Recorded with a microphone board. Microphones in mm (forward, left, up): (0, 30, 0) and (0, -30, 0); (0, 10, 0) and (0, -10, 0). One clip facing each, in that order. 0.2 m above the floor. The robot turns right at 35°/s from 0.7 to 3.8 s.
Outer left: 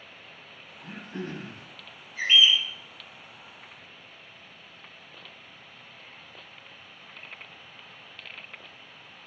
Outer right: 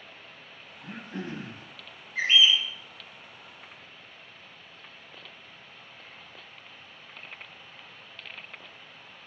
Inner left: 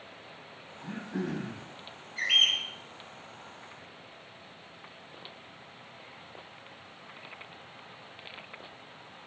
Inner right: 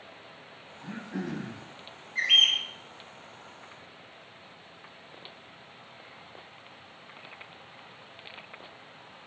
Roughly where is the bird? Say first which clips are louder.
Outer left 1 dB, inner right 3 dB; right.